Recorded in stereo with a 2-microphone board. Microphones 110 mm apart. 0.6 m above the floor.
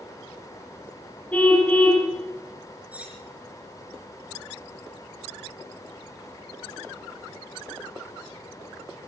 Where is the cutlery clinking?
15° right (ahead or behind), 5 m.